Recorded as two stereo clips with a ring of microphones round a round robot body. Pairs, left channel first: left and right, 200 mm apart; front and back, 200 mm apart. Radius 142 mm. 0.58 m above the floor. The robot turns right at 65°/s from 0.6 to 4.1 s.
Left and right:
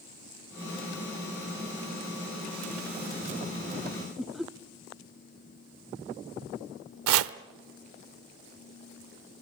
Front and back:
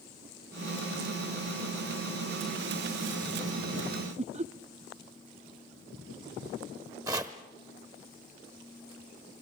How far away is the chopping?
About 0.5 m.